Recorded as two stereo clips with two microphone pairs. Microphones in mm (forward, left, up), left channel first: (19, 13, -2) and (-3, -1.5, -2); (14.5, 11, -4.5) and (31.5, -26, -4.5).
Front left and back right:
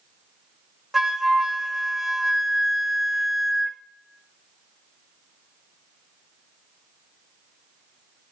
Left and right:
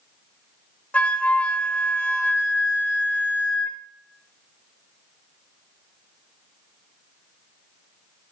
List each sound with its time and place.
0.9 s a flute: 145° left, 0.5 m